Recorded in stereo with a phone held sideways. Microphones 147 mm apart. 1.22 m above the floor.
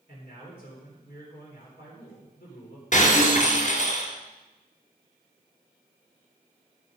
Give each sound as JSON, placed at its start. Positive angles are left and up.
{"t": 0.1, "sound": "a man speaking", "side_deg": 75, "distance_m": 4.0}
{"t": 2.9, "sound": "breaking glass", "side_deg": 55, "distance_m": 2.5}